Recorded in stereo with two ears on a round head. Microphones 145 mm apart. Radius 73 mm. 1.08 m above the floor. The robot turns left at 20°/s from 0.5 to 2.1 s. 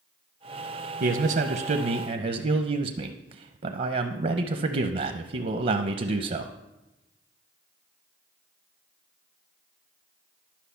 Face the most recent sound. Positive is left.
turn(degrees=-45)  # may be behind; listen again after turning